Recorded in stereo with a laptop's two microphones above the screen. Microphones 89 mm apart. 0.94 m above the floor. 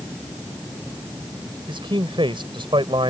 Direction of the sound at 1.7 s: 80° right.